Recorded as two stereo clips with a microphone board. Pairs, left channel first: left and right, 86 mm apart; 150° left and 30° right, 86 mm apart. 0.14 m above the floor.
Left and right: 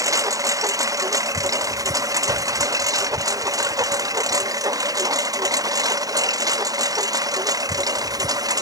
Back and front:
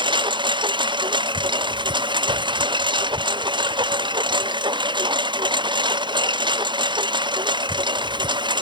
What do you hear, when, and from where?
0.0 s a lawn mower: 40° right; by 8.6 s 45° right